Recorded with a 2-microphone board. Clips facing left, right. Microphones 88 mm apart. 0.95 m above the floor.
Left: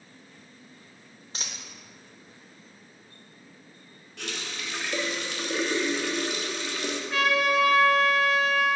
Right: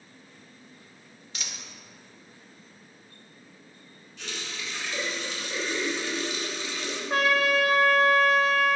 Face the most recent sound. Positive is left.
turn(degrees=-40)  # may be behind; listen again after turning